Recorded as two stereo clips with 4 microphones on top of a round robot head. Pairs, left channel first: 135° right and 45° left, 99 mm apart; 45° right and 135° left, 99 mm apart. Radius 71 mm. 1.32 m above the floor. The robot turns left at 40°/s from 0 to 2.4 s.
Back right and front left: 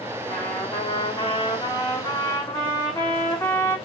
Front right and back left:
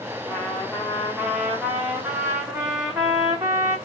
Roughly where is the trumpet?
Right.